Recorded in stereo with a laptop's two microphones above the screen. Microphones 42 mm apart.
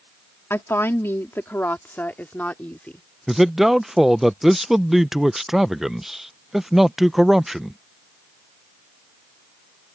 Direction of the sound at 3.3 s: 5° right (ahead or behind).